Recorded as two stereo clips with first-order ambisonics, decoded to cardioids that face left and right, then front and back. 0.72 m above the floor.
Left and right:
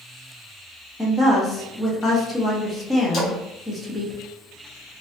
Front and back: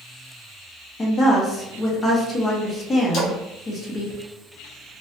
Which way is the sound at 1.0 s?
25° left.